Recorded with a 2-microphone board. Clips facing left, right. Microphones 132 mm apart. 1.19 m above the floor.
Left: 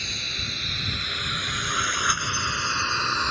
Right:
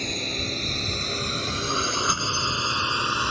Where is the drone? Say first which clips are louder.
Right 8 dB; 45° right (ahead or behind); by 3.3 s 10° right (ahead or behind).